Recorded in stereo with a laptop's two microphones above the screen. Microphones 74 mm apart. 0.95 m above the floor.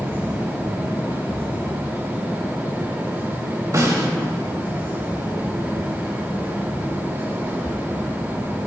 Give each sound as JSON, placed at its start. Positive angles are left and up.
{"t": 0.0, "sound": "a fan", "side_deg": -30, "distance_m": 2.0}
{"t": 3.7, "sound": "a snare drum", "side_deg": -50, "distance_m": 2.5}